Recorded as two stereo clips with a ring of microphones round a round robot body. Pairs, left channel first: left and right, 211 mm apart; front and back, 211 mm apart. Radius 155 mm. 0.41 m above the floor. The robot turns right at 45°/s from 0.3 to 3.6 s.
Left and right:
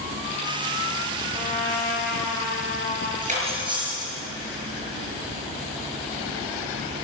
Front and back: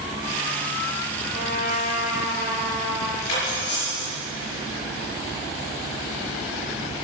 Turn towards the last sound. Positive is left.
turn(degrees=-20)